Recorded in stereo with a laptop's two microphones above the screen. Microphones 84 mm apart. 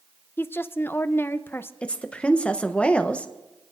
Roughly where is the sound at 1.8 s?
Centre.